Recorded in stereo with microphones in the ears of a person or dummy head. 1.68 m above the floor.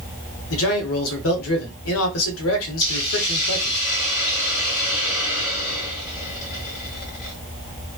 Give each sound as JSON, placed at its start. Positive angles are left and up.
{"t": 0.5, "sound": "a man speaking", "side_deg": 80, "distance_m": 1.0}
{"t": 2.8, "sound": "a hiss", "side_deg": 45, "distance_m": 2.0}